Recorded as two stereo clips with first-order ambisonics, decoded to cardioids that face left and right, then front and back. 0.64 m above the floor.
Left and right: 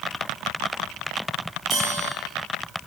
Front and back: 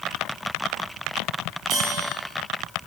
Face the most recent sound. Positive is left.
turn(degrees=-130)